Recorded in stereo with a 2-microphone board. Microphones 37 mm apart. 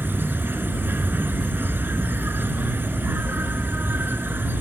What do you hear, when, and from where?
0.0 s an insect: 75° right (ahead or behind)